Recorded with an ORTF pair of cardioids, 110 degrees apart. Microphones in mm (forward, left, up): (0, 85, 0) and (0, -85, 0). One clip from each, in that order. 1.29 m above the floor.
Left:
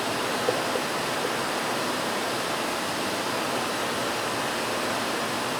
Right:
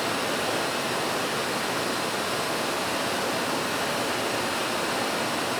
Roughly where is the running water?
Ahead.